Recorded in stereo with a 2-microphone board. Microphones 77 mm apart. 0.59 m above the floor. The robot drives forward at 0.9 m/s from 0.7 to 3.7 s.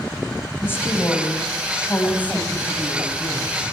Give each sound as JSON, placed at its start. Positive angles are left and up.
{"t": 0.6, "sound": "a woman speaking", "side_deg": 30, "distance_m": 4.0}